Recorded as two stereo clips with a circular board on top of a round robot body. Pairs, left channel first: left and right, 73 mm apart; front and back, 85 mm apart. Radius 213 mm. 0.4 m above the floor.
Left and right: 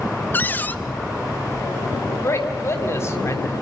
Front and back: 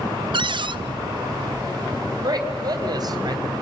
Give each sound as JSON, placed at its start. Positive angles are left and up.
{"t": 0.3, "sound": "a cupboard door", "azimuth_deg": 155, "distance_m": 0.7}
{"t": 2.2, "sound": "a man speaking", "azimuth_deg": 140, "distance_m": 4.0}